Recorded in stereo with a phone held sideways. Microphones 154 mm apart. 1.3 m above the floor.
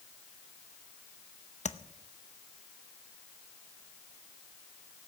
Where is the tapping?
50° left (ahead or behind), 0.7 m.